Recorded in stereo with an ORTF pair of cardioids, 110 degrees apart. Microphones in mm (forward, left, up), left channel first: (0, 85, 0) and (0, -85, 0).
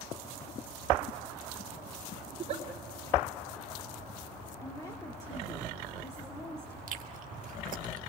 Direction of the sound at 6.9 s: 55° right.